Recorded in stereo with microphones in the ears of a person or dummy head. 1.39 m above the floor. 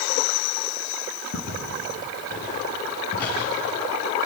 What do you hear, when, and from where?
1.3 s footsteps: 60° left (ahead or behind), 8.5 m; by 3.5 s 50° left (ahead or behind), 9 m